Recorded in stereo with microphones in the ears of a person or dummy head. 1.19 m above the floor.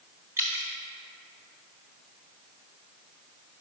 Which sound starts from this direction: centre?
Dripping, at 0.4 s.